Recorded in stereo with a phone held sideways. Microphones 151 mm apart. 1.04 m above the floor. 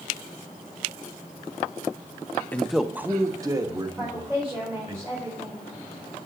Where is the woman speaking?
15° right (ahead or behind), 4.5 m.